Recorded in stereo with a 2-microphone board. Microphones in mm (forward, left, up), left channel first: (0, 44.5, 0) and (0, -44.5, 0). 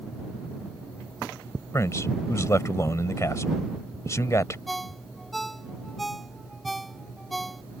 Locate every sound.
1.7 s a man speaking: 35° left (ahead or behind)
4.7 s a ringtone: centre (ahead or behind)